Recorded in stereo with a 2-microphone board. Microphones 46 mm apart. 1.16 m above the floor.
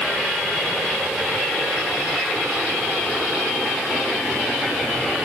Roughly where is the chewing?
No chewing in this recording.